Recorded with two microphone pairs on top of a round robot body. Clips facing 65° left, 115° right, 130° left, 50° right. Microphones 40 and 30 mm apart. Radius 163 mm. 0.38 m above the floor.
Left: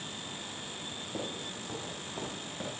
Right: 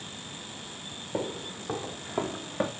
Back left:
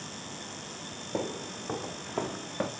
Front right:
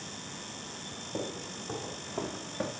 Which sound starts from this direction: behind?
Footsteps, at 1.1 s.